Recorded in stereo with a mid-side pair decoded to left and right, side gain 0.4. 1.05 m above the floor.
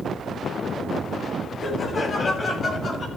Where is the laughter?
45° left, 8 m; by 3.1 s 50° left, 6.5 m.